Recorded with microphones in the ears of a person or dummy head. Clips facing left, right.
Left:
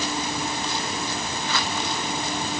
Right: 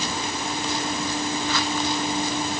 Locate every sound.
Only background noise.